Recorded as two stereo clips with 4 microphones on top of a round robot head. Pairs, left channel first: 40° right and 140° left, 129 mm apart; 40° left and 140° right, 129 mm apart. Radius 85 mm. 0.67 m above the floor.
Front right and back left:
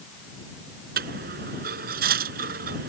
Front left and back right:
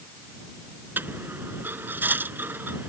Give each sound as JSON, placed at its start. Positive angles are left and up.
{"t": 1.0, "sound": "a dropped coin", "azimuth_deg": 145}